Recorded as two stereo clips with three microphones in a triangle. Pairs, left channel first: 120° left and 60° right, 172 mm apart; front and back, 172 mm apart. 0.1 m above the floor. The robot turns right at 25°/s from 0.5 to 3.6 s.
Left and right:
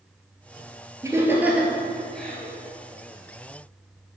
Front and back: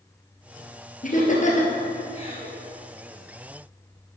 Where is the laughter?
5° left, 1.9 m; by 2.5 s 45° left, 1.9 m.